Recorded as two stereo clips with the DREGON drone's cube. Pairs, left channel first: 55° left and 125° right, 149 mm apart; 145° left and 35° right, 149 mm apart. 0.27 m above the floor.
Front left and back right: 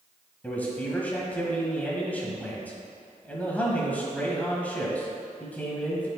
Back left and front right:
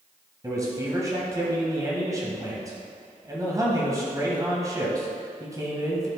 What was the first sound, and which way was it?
A man speaking, 10° right.